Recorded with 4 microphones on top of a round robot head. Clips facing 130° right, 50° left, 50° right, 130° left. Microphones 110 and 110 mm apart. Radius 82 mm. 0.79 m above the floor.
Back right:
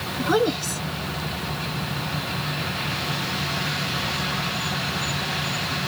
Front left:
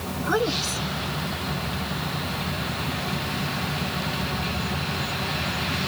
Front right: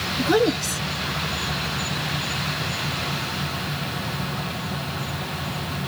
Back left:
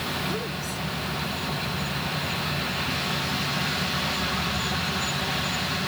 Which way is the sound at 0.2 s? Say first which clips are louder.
Back right 4 dB, front right 11 dB; 60° right.